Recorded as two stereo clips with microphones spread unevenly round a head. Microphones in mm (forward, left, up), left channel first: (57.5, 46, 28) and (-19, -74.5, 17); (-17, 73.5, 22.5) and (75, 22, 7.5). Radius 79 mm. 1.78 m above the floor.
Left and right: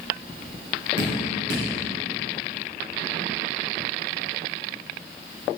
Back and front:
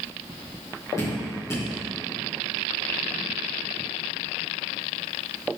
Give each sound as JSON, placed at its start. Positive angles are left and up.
{"t": 1.0, "sound": "dripping", "azimuth_deg": -140, "distance_m": 2.5}